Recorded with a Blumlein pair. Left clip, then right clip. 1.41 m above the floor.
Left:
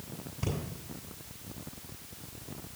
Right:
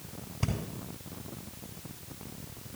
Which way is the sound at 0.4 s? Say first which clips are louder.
Even; 15° right.